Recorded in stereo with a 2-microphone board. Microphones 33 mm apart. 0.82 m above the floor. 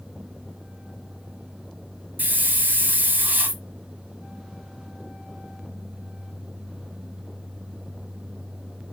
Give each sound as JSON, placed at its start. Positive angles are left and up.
{"t": 2.2, "sound": "a hiss", "side_deg": -75, "distance_m": 1.6}